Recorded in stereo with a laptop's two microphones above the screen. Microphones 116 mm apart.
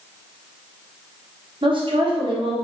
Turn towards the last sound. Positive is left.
turn(degrees=-50)  # may be behind; listen again after turning